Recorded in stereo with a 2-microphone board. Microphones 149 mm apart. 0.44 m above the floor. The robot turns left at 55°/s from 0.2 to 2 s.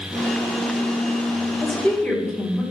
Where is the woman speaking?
Centre (ahead or behind), 1.2 m; by 2.6 s 10° left (ahead or behind), 1.2 m.